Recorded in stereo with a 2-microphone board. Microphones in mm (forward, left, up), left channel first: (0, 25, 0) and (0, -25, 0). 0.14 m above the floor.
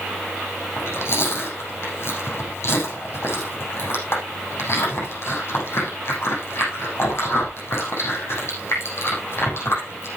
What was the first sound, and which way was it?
Chewing, 55° left (ahead or behind).